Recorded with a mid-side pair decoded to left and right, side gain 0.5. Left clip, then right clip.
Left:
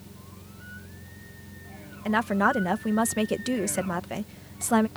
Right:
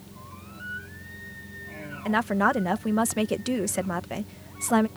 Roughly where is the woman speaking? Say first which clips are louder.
Even; ahead.